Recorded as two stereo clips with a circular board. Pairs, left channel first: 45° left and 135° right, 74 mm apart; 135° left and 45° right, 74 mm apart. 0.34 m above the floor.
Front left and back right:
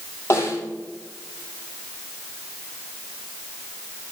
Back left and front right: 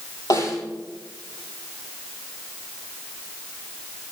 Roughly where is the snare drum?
Left.